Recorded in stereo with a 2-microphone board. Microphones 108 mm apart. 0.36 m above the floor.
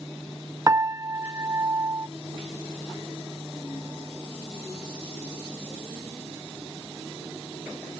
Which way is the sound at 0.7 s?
30° right (ahead or behind).